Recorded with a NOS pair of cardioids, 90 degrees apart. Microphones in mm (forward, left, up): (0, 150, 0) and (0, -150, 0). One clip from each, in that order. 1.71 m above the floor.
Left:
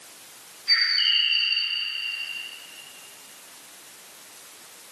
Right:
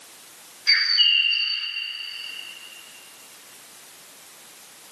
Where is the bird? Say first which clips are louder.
Right 3 dB; 70° right, 1.3 m.